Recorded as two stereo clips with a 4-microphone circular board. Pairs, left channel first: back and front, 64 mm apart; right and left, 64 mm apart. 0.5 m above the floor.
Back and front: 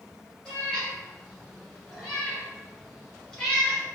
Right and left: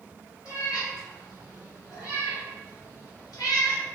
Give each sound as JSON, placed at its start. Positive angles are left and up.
{"t": 0.5, "sound": "a cat meowing", "azimuth_deg": -105, "distance_m": 1.8}